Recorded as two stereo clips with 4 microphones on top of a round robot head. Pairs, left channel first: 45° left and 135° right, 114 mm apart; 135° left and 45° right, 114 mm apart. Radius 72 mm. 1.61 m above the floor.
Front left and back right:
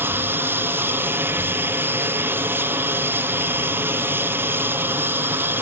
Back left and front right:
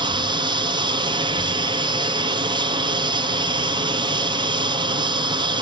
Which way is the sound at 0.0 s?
70° right.